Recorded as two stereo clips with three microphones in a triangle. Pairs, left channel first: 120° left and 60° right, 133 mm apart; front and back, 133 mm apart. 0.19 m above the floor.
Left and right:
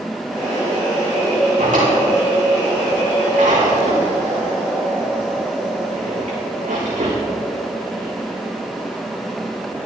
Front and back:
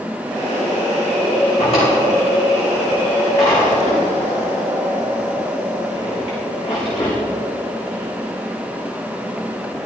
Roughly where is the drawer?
Ahead right.